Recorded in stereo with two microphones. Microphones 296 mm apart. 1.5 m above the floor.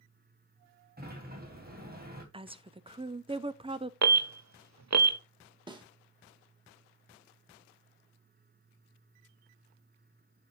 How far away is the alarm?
About 0.7 m.